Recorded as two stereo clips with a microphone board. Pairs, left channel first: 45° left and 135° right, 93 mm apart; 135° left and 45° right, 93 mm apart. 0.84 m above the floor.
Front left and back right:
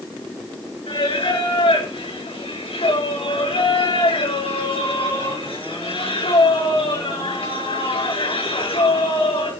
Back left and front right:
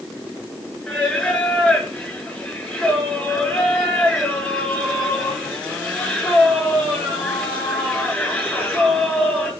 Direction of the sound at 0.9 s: 50° left.